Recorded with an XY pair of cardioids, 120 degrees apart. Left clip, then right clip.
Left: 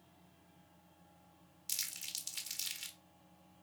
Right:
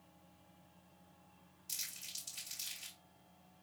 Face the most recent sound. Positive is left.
turn(degrees=65)